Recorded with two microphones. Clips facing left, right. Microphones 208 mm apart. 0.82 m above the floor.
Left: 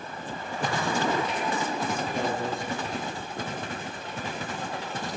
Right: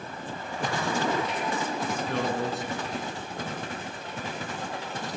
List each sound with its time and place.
2.1 s a man speaking: 80° right, 8.5 m